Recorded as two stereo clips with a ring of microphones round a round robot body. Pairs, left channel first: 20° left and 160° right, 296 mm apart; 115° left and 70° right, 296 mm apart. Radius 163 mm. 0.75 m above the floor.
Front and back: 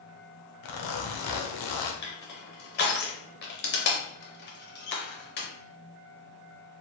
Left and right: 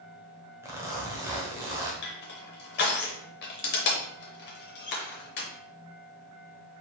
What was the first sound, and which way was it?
A zipper, 15° left.